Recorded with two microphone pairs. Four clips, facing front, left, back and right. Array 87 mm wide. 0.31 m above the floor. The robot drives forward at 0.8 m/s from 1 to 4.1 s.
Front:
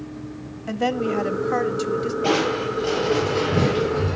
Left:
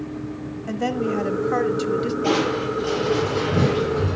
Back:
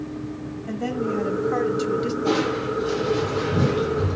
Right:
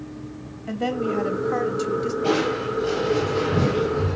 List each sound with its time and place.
0.7 s a woman speaking: 20° left, 1.1 m; by 2.1 s 125° left, 0.9 m
2.2 s crushing: 20° left, 9 m; by 4.2 s 25° left, 7.5 m